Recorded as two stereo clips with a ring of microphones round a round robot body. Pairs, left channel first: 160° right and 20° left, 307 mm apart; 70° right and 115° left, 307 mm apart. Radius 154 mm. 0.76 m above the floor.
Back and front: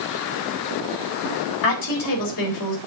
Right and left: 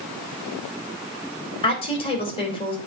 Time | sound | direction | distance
1.6 | a woman speaking | 140° right | 4 m